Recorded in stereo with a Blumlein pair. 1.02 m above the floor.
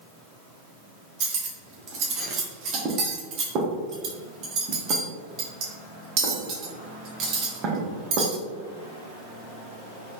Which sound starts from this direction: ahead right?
Cutlery clinking, at 1.2 s.